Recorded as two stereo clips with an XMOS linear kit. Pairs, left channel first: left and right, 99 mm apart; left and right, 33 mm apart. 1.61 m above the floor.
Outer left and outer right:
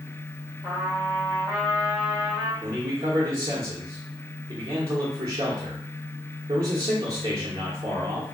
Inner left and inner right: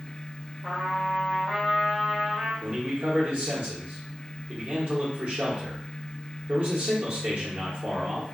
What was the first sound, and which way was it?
A trumpet, 25° right (ahead or behind).